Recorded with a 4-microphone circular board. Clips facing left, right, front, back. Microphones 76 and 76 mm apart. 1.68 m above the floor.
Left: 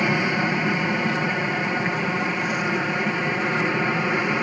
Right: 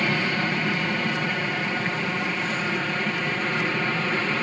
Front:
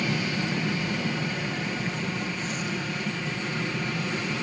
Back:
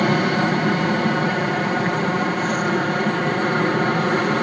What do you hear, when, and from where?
0.0 s an aircraft: 165° left